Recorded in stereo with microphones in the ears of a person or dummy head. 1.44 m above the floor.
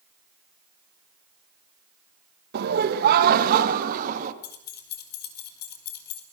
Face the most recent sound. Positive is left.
turn(degrees=65)  # may be behind; listen again after turning